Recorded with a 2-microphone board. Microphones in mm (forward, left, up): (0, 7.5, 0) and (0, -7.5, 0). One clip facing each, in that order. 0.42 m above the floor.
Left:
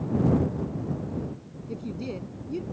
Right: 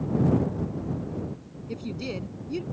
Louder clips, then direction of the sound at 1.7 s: Right 1 dB; 40° right (ahead or behind).